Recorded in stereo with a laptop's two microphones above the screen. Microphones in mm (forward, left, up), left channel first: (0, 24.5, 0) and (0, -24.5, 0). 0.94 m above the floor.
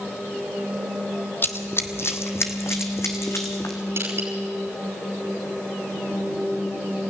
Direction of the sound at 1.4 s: 45° left (ahead or behind).